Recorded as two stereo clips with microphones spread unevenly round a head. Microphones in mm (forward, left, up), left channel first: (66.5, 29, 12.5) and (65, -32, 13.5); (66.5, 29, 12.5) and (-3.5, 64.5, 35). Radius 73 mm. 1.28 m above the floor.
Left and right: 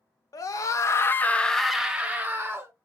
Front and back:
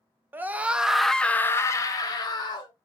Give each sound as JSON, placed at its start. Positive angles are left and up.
{"t": 0.3, "sound": "a scream", "azimuth_deg": 80, "distance_m": 0.7}